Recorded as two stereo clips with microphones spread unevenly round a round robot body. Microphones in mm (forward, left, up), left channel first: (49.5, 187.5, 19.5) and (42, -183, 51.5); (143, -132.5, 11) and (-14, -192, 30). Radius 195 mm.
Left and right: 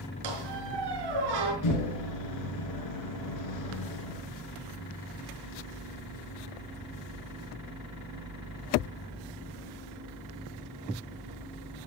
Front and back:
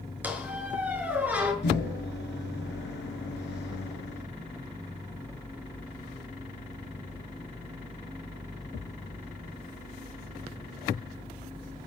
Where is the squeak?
80° right, 5 m.